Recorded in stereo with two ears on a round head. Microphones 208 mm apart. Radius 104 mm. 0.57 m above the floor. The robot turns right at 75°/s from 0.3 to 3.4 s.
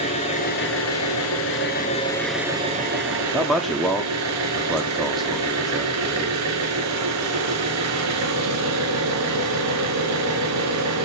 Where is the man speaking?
Centre (ahead or behind), 0.6 m.